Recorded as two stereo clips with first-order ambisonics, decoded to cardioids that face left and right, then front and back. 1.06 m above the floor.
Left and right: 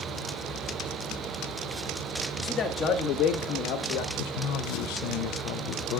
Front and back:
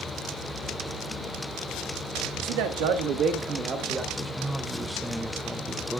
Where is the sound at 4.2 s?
95° left, 0.6 m.